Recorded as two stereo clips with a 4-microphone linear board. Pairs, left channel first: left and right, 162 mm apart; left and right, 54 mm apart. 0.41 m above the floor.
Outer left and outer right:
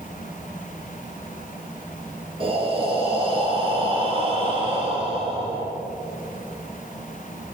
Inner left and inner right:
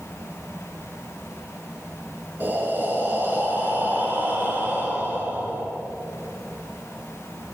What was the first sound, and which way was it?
Breathing, 35° right (ahead or behind).